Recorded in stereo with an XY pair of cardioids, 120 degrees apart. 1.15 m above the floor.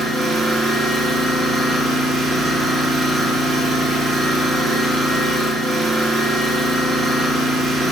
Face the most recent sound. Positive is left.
turn(degrees=-40)